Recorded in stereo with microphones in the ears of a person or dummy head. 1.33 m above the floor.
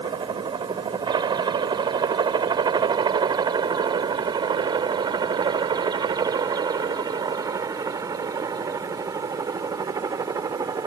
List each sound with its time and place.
0.0 s a helicopter: 25° right (ahead or behind); by 10.9 s 20° right (ahead or behind)